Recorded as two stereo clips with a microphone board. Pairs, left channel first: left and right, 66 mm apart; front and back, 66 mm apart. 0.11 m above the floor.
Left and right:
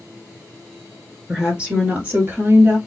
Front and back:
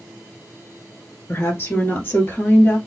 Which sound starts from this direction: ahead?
A woman speaking, at 1.3 s.